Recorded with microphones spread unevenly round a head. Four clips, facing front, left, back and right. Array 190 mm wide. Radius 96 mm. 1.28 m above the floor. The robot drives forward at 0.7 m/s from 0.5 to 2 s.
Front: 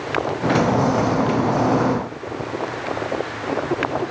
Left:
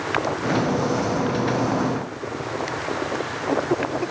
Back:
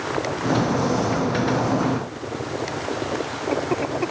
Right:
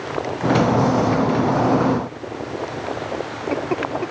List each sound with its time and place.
Only background noise.